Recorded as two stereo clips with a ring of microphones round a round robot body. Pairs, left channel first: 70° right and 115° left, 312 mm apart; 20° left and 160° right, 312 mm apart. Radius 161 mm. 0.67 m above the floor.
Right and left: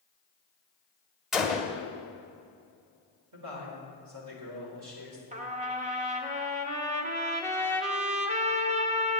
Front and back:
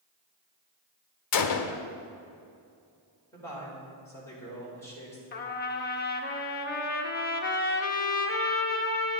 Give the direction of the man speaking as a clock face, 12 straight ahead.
9 o'clock.